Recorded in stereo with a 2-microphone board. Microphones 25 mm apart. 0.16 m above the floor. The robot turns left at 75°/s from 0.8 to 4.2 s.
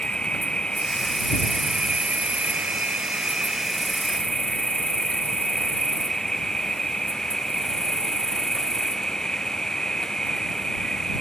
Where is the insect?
45° left; by 11.2 s 150° left.